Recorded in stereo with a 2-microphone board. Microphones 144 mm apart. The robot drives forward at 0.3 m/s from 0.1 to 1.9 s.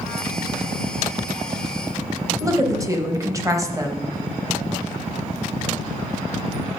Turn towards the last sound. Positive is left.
turn(degrees=-20)  # may be behind; listen again after turning